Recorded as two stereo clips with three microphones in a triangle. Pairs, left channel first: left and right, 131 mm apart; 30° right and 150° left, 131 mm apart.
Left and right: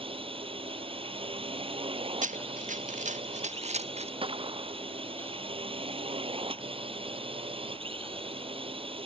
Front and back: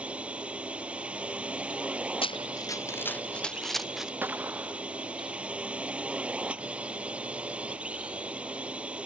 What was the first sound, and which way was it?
A drone, 130° right.